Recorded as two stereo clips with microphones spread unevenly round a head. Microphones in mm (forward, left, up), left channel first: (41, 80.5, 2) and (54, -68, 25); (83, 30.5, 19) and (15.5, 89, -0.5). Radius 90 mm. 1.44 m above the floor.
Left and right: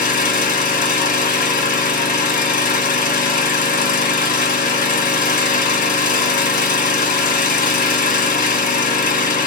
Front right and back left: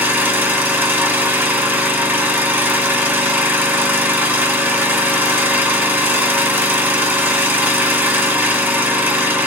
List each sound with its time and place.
0.0 s an engine running: 65° left, 1.7 m